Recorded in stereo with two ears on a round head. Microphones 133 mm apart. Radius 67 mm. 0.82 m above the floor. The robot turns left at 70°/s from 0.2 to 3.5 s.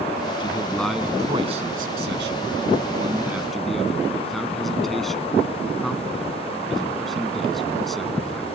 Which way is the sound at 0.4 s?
35° left (ahead or behind).